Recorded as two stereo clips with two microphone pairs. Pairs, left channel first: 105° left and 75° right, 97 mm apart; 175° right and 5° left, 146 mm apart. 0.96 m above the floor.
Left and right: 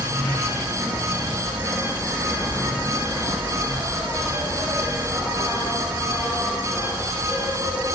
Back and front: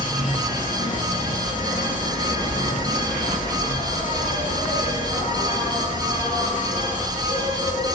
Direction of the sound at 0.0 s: 155° right.